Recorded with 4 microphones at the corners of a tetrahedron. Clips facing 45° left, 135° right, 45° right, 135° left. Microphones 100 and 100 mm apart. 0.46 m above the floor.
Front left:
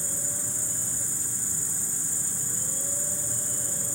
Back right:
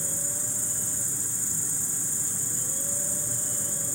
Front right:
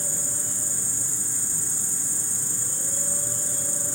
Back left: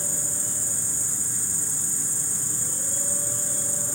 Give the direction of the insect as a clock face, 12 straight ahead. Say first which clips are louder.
Even, even; 9 o'clock.